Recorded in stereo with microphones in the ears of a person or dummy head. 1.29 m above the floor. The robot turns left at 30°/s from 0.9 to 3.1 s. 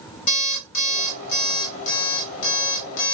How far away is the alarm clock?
About 1.5 m.